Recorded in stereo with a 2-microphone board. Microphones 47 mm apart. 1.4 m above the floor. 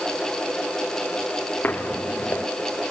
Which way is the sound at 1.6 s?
40° left (ahead or behind).